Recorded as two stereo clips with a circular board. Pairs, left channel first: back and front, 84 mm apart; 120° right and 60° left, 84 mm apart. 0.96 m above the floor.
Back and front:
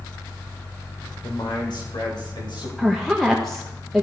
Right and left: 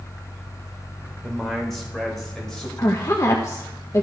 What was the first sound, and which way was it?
A man speaking, 155° left.